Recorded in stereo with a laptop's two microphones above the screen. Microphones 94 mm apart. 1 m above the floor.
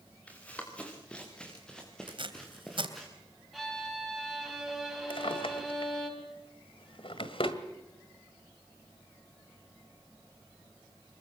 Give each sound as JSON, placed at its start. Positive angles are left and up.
{"t": 0.3, "sound": "running footsteps", "side_deg": 15, "distance_m": 7.0}
{"t": 2.1, "sound": "tape being pulled", "side_deg": -65, "distance_m": 3.0}
{"t": 3.5, "sound": "a violin", "side_deg": 0, "distance_m": 4.0}
{"t": 5.1, "sound": "a drawer", "side_deg": 70, "distance_m": 1.8}